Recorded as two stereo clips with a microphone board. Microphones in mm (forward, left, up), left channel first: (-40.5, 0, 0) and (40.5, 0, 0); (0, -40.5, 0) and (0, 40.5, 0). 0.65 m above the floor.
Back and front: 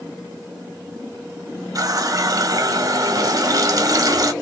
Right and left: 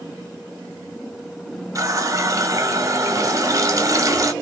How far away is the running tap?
About 0.7 m.